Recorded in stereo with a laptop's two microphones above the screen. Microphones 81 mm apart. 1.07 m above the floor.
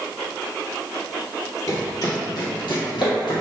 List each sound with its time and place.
1.7 s running footsteps: 40° left (ahead or behind), 1.8 m; by 3.4 s 65° left (ahead or behind), 3 m